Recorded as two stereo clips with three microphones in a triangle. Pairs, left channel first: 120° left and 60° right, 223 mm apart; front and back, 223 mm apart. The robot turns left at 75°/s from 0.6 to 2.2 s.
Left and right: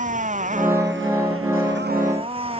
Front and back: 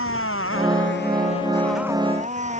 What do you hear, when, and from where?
0.0 s a motorcycle: 5° right; by 2.6 s 125° right